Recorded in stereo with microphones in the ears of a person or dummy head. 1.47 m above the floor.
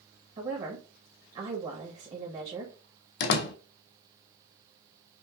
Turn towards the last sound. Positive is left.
turn(degrees=55)  # may be behind; listen again after turning